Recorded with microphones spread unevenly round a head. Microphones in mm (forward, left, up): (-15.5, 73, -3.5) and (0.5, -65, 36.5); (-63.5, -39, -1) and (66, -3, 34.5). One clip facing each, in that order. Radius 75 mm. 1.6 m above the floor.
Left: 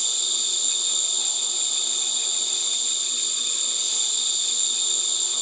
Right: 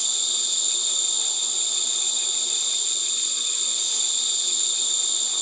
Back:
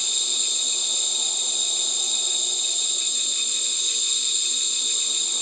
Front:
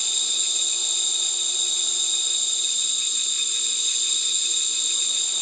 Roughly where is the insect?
Right.